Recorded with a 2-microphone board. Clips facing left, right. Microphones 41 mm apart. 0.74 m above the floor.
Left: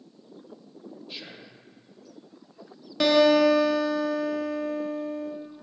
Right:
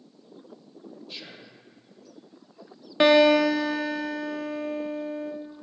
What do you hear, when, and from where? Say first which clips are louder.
1.1 s whispering: left 1 dB; 5° left (ahead or behind), 0.5 m
3.0 s a guitar: right 1 dB; 30° right (ahead or behind), 0.6 m